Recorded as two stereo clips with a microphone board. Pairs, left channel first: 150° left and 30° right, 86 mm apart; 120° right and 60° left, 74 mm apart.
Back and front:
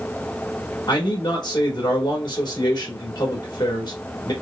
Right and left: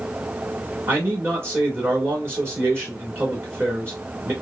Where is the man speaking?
115° left, 1.7 m.